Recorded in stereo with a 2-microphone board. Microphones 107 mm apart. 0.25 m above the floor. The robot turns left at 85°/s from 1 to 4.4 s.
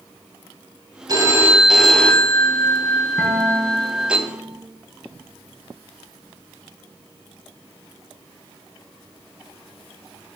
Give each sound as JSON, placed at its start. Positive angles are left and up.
{"t": 1.1, "sound": "a phone ringing", "azimuth_deg": -115, "distance_m": 0.8}
{"t": 3.2, "sound": "a guitar", "azimuth_deg": 0, "distance_m": 2.5}